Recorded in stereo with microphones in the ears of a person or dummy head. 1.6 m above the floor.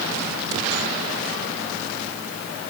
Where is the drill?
I don't hear a drill.